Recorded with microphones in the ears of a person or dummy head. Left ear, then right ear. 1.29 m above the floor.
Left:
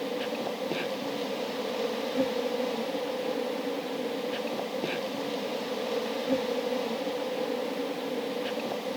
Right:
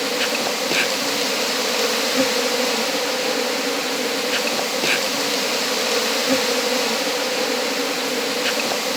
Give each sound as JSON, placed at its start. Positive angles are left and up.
{"t": 0.0, "sound": "an insect", "side_deg": -55}